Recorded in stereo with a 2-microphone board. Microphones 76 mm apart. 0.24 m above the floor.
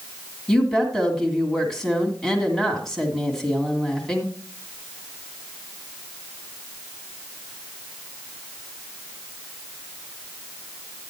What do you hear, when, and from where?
0.5 s a woman speaking: 5° left (ahead or behind), 2 m